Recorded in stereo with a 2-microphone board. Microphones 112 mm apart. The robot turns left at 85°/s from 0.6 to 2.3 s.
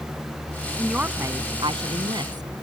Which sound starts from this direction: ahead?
A woman speaking, at 0.8 s.